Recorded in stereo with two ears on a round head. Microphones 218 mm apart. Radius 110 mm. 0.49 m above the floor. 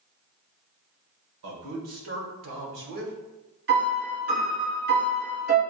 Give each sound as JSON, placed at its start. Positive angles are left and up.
{"t": 1.4, "sound": "a man speaking", "side_deg": -60, "distance_m": 1.7}
{"t": 3.7, "sound": "a piano", "side_deg": -40, "distance_m": 2.0}